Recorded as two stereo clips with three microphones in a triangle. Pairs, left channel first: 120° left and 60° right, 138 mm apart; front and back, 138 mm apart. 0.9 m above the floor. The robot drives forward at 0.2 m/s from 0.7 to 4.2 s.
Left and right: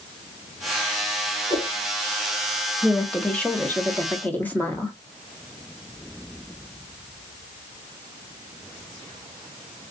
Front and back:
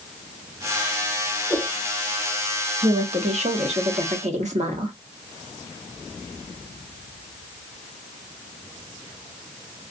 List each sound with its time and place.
1.5 s a whoosh: 115° left, 1.4 m; by 1.7 s 120° left, 1.4 m
2.8 s a woman speaking: 155° right, 0.9 m; by 4.9 s 165° right, 1.1 m